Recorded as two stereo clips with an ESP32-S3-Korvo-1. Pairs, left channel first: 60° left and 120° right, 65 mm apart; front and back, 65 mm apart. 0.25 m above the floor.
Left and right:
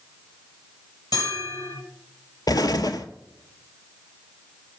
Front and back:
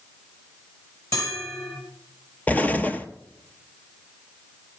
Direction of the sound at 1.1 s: 40° left.